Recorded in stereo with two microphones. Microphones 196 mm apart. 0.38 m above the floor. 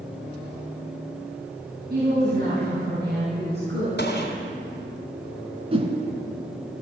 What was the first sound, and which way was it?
A woman speaking, 55° right (ahead or behind).